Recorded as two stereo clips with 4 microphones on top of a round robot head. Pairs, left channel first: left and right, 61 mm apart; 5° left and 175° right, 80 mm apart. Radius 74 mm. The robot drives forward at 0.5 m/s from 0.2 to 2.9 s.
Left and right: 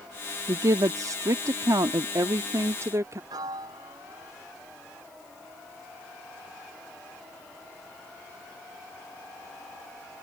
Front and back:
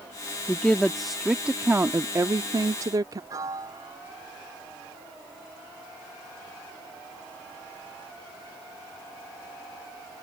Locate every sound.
0.5 s a woman speaking: 70° right; by 3.2 s 135° right
3.3 s a piano: 120° right